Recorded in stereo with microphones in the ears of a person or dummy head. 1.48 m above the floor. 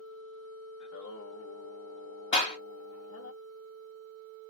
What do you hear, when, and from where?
0.8 s singing: 60° left (ahead or behind), 1.3 m
2.3 s a clap: 30° left (ahead or behind), 1.8 m